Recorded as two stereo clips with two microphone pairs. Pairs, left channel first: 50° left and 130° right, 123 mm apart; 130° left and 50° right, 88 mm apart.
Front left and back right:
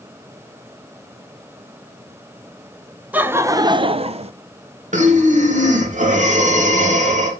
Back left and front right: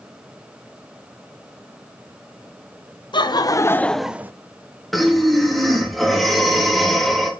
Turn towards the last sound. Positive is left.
turn(degrees=-140)